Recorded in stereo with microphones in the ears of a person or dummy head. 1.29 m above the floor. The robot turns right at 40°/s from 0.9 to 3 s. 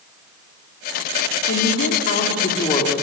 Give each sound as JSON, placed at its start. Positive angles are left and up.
{"t": 1.5, "sound": "a woman speaking", "azimuth_deg": 95, "distance_m": 2.5}